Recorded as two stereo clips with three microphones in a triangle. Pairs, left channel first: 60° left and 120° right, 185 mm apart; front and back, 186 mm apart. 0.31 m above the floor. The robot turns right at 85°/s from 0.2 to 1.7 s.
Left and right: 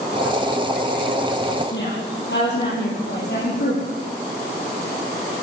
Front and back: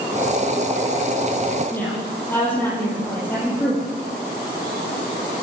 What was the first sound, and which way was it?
A woman speaking, 80° left.